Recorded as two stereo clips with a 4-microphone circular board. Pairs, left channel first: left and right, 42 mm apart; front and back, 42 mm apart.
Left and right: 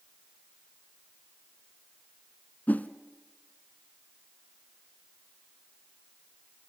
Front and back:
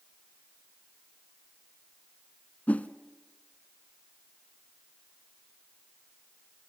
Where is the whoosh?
50° left, 0.8 m.